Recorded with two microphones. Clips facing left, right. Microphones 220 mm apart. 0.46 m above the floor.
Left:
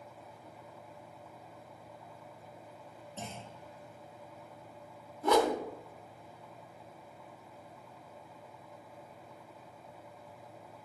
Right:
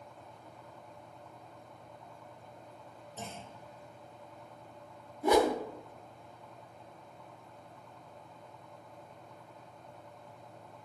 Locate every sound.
3.2 s a clunk: 70° left (ahead or behind), 3.5 m
5.2 s a whoosh: 10° right (ahead or behind), 0.8 m